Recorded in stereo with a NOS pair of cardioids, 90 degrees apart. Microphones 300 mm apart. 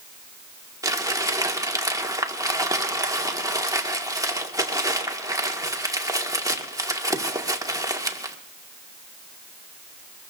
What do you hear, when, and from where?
0.8 s crumpling: 10° right, 2.0 m